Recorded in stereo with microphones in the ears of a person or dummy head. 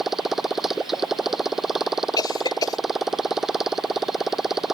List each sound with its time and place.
0.0 s a motorcycle: centre (ahead or behind)
2.2 s a cough: 20° left (ahead or behind)